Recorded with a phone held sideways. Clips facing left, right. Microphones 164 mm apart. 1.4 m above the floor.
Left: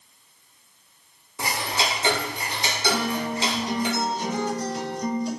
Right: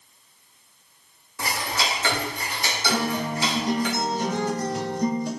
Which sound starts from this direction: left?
Ticking, at 1.4 s.